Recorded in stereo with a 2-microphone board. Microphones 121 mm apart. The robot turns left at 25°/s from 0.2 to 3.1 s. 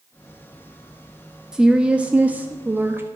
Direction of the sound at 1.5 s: 5° right (ahead or behind).